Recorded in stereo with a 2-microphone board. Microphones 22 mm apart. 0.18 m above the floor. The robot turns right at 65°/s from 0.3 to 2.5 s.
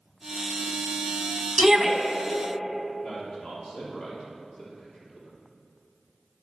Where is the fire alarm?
I don't hear a fire alarm.